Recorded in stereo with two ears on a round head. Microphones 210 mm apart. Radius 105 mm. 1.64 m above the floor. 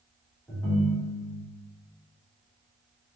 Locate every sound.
0.5 s a ringtone: 10° left (ahead or behind), 0.8 m